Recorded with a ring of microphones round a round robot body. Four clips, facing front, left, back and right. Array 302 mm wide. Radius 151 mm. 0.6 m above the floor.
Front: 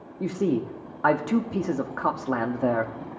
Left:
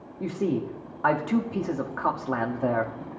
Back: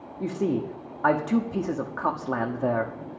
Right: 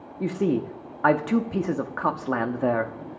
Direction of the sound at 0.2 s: 70° right.